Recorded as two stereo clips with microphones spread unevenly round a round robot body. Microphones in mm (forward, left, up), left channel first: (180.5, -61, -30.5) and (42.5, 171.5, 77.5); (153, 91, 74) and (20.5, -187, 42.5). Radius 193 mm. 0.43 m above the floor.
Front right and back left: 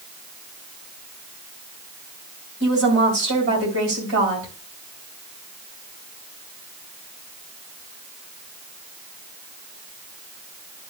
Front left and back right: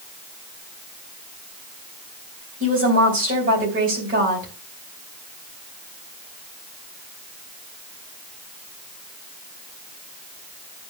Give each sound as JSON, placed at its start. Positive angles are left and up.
{"t": 2.6, "sound": "a woman speaking", "azimuth_deg": 180, "distance_m": 3.5}